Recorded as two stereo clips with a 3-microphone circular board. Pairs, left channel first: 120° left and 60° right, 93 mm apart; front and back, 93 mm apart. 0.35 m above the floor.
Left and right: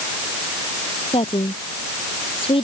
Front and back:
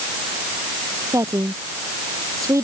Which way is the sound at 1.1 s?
125° left.